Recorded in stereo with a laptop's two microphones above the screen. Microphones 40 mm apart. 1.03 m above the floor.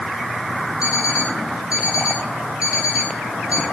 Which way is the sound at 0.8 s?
30° right (ahead or behind).